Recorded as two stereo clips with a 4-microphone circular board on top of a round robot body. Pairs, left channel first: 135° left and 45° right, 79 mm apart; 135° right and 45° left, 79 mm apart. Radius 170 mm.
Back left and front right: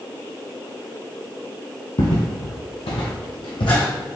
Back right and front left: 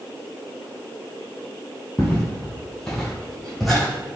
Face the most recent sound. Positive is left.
turn(degrees=135)